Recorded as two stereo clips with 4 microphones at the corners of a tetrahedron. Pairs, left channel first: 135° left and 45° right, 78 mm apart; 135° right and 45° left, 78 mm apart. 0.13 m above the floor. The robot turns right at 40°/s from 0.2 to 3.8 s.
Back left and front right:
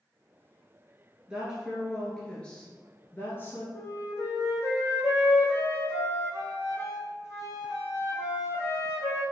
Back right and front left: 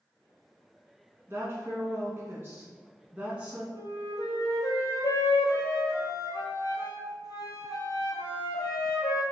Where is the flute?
175° right, 1.1 m; by 9.2 s 170° right, 1.1 m.